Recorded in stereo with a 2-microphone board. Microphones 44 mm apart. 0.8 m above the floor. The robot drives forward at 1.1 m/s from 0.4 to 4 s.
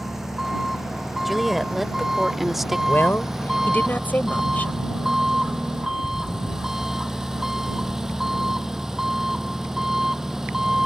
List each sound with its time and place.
0.0 s an engine running: 5° right (ahead or behind); by 10.9 s 10° right (ahead or behind)
1.2 s a woman speaking: centre (ahead or behind); by 2.8 s 5° right (ahead or behind)
2.9 s a woman speaking: 55° left (ahead or behind); by 4.7 s 40° left (ahead or behind)